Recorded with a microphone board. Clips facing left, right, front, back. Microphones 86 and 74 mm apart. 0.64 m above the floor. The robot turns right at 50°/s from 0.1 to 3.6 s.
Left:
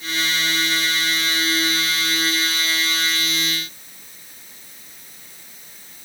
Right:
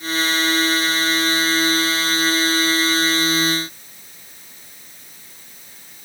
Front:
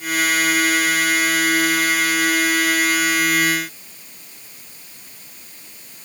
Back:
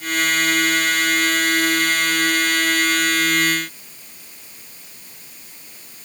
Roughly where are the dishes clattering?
I don't hear dishes clattering.